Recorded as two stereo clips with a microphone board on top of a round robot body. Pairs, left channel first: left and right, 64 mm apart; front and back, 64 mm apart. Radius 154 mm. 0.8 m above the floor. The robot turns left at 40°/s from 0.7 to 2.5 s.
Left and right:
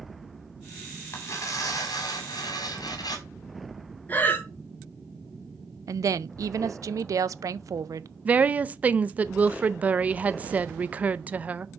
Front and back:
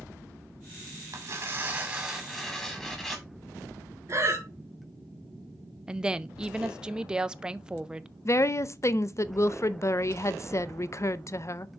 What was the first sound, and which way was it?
Tearing paper, 140° left.